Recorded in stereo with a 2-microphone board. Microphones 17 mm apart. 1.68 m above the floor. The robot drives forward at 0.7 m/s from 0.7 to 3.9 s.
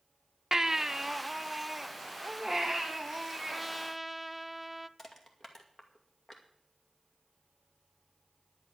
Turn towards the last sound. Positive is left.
turn(degrees=25)  # may be behind; listen again after turning